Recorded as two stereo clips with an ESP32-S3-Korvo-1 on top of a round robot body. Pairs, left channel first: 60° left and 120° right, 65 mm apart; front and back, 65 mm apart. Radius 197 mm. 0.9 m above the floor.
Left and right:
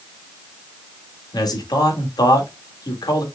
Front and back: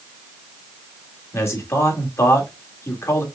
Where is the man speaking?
50° left, 1.9 m.